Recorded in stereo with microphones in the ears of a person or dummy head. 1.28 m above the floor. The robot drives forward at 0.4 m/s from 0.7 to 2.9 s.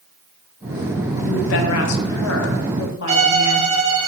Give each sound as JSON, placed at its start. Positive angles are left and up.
{"t": 1.2, "sound": "a woman speaking", "side_deg": 65, "distance_m": 0.8}
{"t": 3.1, "sound": "a violin", "side_deg": -30, "distance_m": 1.0}